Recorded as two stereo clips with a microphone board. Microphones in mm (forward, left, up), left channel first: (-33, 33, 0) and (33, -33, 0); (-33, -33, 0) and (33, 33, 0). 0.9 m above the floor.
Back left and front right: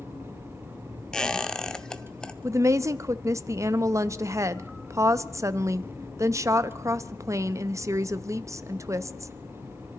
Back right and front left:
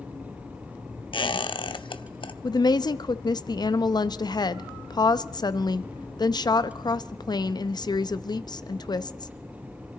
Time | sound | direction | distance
1.1 | a squeak | 145° right | 0.7 m
2.4 | a woman speaking | 100° right | 0.6 m